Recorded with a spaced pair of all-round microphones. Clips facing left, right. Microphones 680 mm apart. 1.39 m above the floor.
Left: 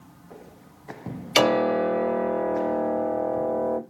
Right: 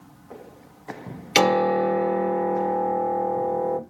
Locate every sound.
1.4 s a piano: 50° right (ahead or behind), 1.5 m